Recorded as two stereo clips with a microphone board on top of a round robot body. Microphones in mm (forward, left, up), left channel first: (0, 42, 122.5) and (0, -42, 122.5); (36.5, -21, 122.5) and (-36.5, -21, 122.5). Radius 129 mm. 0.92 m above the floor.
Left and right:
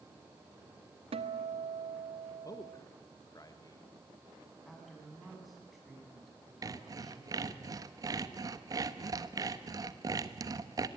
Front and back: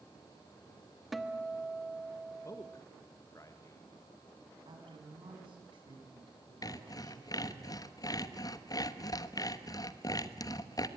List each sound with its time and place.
1.1 s a guitar: 90° right, 1.4 m
2.5 s a man speaking: 45° left, 1.5 m
4.7 s a woman speaking: straight behind, 7.5 m
6.6 s sawing: 40° right, 1.1 m